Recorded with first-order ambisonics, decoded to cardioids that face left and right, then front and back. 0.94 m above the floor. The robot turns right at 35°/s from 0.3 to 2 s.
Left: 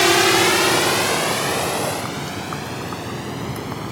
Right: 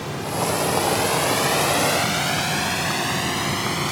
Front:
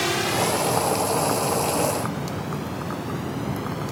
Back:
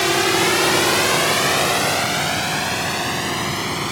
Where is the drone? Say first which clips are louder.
Left 11 dB, back 6 dB; 110° left; by 3.9 s 145° right.